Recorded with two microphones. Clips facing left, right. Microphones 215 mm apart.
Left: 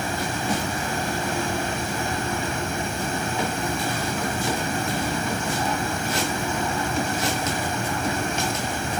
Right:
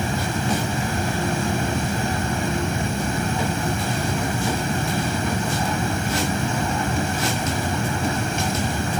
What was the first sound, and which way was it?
Only background noise.